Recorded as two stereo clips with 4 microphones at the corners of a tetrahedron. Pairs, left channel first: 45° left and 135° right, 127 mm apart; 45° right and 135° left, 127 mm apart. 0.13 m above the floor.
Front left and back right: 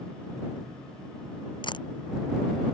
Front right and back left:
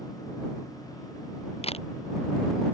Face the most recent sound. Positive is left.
turn(degrees=-5)